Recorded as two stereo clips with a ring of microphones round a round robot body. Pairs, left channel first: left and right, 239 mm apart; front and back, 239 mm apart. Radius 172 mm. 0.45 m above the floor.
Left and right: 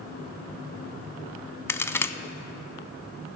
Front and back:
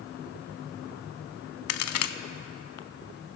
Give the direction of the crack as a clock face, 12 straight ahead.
12 o'clock.